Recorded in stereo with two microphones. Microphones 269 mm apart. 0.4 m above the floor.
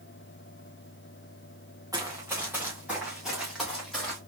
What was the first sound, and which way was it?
Running footsteps, 15° right (ahead or behind).